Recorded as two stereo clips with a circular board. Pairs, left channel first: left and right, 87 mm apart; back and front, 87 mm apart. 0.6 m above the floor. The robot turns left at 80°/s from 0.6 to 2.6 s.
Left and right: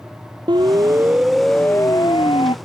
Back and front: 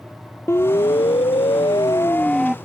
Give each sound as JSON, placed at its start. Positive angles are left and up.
{"t": 0.5, "sound": "a siren", "azimuth_deg": -120}